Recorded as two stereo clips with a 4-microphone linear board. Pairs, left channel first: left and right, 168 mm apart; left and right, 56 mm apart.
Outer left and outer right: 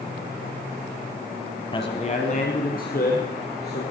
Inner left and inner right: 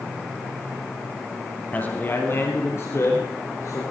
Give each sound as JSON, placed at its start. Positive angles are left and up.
{"t": 1.7, "sound": "a man speaking", "side_deg": 30, "distance_m": 1.4}